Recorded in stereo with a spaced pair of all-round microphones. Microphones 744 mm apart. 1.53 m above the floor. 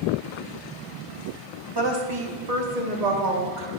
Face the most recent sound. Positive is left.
turn(degrees=-75)  # may be behind; listen again after turning